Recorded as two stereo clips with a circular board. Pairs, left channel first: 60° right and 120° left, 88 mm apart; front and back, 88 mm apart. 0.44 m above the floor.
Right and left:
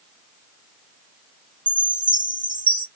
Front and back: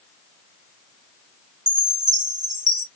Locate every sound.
1.7 s a chime: 50° left, 1.5 m